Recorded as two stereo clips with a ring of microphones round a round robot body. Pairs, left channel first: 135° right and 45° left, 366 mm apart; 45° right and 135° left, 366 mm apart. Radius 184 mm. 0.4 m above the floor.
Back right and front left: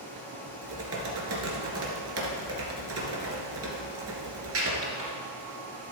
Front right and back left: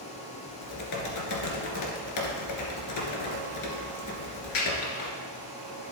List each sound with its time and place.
0.6 s typing on a keyboard: 5° right, 1.8 m